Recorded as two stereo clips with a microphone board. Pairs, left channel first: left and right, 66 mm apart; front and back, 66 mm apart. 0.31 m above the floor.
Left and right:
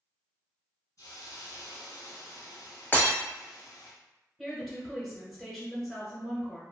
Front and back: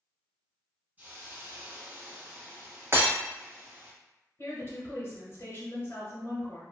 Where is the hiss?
115° left, 0.9 m.